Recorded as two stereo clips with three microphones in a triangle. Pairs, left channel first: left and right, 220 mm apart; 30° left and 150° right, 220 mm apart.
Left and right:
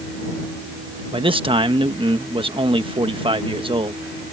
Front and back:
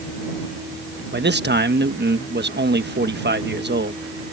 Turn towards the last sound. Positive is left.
turn(degrees=-150)